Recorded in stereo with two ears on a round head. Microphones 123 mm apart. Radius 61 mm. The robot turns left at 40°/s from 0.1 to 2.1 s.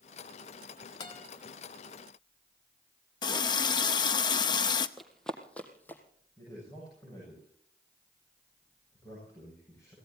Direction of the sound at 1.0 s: 35° left (ahead or behind).